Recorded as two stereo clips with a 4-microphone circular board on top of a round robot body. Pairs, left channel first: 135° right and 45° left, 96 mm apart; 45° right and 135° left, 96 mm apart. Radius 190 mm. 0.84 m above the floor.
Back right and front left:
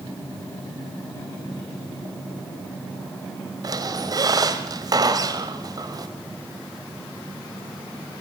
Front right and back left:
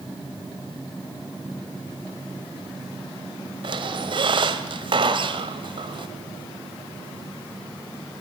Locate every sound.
3.6 s a squeak: 95° left, 1.8 m